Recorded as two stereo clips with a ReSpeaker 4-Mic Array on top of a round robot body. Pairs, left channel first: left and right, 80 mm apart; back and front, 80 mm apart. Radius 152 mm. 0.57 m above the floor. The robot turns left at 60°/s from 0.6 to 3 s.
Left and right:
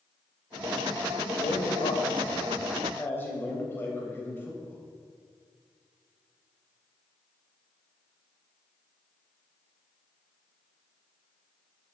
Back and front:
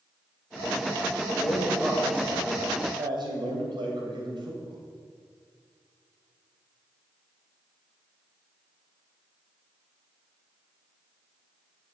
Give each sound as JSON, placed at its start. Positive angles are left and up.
{"t": 1.3, "sound": "a man speaking", "azimuth_deg": 125, "distance_m": 3.0}